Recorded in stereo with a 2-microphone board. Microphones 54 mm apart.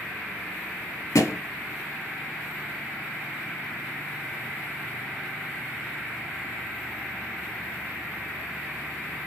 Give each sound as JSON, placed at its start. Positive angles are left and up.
{"t": 1.1, "sound": "a thud", "side_deg": 90, "distance_m": 0.7}